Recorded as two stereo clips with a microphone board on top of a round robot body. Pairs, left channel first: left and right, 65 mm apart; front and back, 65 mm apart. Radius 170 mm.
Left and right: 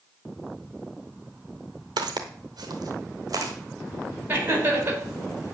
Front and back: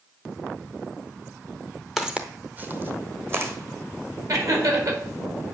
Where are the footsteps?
95° right, 0.5 m; by 3.5 s 125° right, 1.5 m.